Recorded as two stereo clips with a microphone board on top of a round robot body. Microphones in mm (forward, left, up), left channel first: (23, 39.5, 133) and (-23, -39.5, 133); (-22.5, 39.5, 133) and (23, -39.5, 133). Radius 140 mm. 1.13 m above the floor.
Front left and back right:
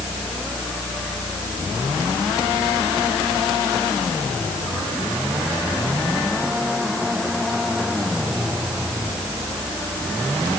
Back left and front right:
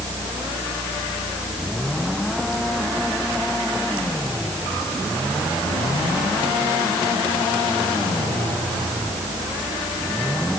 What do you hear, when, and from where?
Only background noise.